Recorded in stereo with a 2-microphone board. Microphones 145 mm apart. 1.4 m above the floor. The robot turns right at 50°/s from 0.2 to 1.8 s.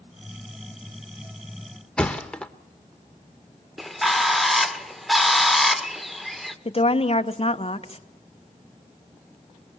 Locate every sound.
2.0 s a thud: 5° left (ahead or behind), 1.1 m
3.8 s a bird: centre (ahead or behind), 1.1 m
6.7 s a woman speaking: 45° left (ahead or behind), 1.3 m